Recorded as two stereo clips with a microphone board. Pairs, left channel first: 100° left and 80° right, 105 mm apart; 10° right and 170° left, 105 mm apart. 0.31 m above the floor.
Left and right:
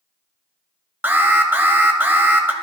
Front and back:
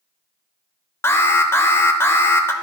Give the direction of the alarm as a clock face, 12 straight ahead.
1 o'clock.